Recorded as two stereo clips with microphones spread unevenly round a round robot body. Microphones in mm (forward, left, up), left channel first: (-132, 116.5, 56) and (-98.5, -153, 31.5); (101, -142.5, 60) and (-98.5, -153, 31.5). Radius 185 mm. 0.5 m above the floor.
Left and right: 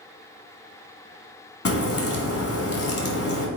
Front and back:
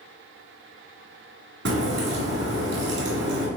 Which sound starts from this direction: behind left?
A crack, at 1.6 s.